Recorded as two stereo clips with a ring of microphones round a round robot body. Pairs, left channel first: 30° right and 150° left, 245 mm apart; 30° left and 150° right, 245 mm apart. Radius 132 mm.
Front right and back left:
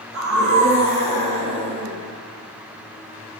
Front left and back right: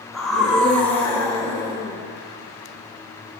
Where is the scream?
120° left, 4 m; by 2.0 s 105° left, 4 m.